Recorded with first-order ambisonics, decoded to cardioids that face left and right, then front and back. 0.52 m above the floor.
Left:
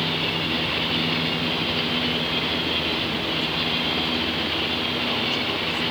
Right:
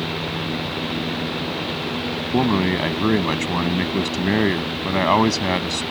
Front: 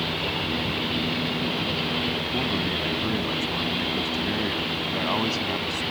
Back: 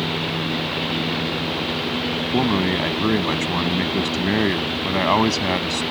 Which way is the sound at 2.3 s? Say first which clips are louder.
Right 3 dB, back 5 dB; 125° right.